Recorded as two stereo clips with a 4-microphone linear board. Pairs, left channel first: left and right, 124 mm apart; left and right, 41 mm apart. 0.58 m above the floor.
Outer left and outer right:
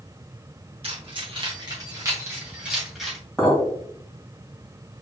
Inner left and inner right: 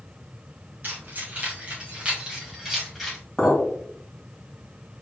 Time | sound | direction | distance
0.8 | keys jangling | 55° right (ahead or behind) | 2.5 m
3.4 | a clink | 5° left (ahead or behind) | 1.8 m